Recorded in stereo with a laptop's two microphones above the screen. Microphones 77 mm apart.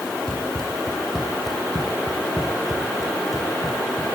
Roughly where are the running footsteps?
Centre.